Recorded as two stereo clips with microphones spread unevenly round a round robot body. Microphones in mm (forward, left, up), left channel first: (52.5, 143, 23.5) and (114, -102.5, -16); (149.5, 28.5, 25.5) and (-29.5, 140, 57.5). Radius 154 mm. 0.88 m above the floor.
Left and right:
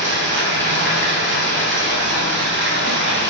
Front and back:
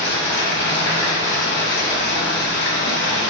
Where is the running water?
45° right, 0.8 m.